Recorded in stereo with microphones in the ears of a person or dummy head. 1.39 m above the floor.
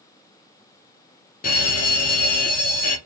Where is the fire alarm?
45° left (ahead or behind), 1.1 m.